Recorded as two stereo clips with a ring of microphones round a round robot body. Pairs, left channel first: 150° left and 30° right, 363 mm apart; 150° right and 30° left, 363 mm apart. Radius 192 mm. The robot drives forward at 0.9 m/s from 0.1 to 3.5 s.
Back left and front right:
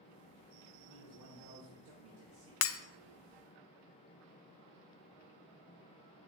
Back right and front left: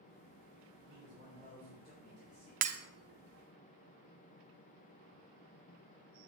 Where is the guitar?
No guitar in this recording.